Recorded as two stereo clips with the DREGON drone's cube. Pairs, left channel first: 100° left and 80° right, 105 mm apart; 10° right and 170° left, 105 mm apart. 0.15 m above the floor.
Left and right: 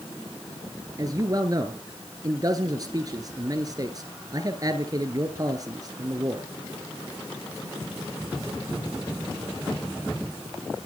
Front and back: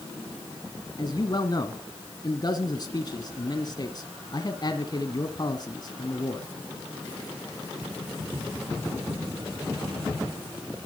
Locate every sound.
1.0 s a man speaking: 45° right, 1.5 m